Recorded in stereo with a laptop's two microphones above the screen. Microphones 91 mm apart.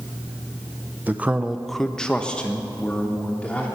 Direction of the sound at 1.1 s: 20° right (ahead or behind).